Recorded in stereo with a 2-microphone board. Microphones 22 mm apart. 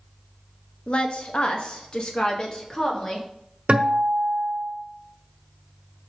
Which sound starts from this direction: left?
A woman speaking, at 0.9 s.